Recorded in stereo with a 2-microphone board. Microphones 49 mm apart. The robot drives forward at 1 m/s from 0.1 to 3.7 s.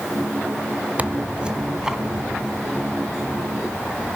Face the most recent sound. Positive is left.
turn(degrees=-5)  # may be behind; listen again after turning